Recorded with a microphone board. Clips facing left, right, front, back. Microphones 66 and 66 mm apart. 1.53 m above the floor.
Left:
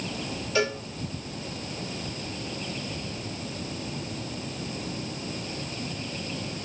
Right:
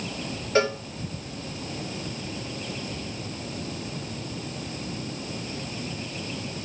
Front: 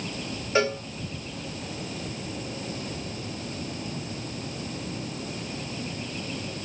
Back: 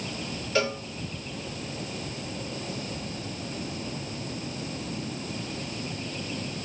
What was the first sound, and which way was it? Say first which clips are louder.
A cowbell: right 4 dB, front 3 dB; 55° right.